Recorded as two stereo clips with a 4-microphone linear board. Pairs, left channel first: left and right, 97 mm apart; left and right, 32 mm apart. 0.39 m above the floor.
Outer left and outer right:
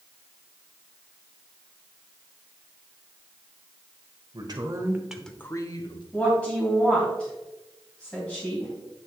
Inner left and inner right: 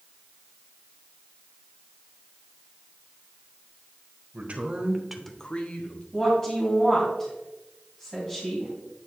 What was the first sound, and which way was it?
A man speaking, 50° right (ahead or behind).